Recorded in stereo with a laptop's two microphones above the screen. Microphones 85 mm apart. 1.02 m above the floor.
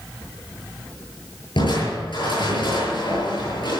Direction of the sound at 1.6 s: 65° left (ahead or behind).